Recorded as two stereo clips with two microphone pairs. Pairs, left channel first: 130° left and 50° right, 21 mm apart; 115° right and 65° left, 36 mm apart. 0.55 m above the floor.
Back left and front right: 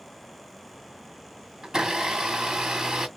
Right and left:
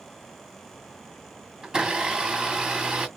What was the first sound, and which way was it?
A blender, straight ahead.